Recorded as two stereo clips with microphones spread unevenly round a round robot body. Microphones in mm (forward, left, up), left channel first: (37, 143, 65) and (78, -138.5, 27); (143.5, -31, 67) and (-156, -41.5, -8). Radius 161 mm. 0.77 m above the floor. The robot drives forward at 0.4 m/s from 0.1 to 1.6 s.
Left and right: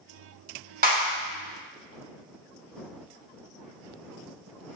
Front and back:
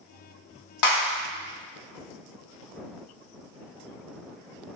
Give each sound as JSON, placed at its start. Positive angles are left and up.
{"t": 0.8, "sound": "a clap", "azimuth_deg": -25, "distance_m": 2.5}